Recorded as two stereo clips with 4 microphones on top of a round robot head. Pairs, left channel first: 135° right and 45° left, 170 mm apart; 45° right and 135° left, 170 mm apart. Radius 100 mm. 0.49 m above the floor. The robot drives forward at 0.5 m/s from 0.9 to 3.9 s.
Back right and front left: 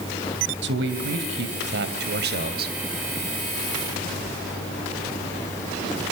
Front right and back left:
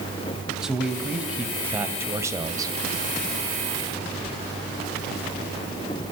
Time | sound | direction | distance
0.6 | a man speaking | 50° left | 3 m